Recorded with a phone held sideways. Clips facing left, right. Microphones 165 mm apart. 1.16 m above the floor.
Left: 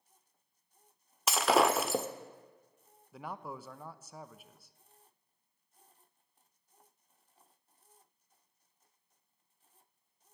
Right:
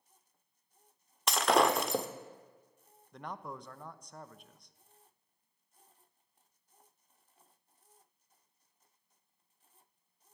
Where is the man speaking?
5° left (ahead or behind), 0.7 m.